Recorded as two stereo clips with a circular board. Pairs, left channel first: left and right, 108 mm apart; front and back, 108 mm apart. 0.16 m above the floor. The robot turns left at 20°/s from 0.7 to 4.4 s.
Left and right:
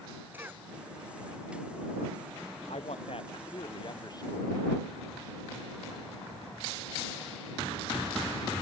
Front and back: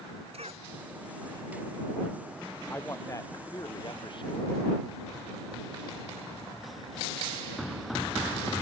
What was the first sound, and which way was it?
A cough, 160° right.